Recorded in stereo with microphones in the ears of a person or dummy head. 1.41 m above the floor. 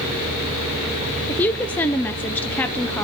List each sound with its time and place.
1.3 s a woman speaking: 10° left (ahead or behind), 0.5 m